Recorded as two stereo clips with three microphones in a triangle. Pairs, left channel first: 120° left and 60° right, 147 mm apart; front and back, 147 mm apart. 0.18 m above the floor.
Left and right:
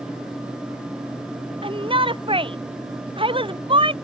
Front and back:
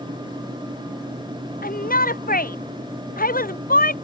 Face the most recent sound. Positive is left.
turn(degrees=-5)